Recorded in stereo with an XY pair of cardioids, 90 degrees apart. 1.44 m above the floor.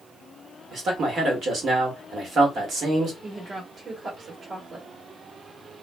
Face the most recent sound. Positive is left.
turn(degrees=-50)